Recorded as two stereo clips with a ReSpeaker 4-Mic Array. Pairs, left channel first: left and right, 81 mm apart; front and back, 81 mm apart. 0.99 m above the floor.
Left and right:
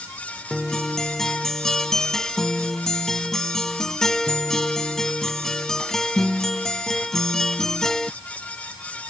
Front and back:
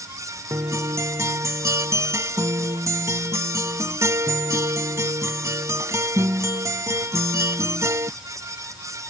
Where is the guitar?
170° left.